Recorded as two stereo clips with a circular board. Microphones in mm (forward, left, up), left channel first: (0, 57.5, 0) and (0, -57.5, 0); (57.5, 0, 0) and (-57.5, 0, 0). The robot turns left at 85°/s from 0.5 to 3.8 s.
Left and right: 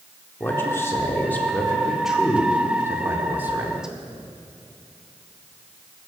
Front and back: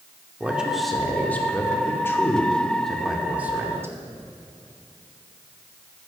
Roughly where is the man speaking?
Behind left.